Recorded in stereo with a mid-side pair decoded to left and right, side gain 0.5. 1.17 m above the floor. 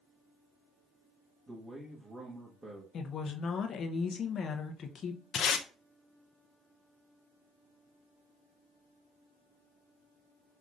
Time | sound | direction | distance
1.5 | a man speaking | 25° right | 1.6 m
2.9 | a woman speaking | 50° left | 0.9 m
5.3 | tape being pulled | 55° left | 0.7 m